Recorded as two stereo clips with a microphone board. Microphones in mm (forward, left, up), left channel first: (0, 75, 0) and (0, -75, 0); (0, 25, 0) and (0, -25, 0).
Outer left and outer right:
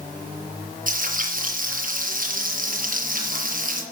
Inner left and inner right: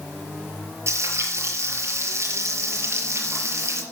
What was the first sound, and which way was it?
Frying, 65° right (ahead or behind).